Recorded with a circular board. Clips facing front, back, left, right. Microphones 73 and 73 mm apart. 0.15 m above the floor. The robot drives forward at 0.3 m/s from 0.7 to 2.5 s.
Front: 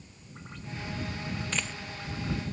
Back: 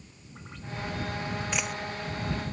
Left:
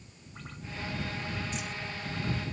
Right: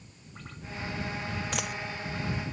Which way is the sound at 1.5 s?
100° right.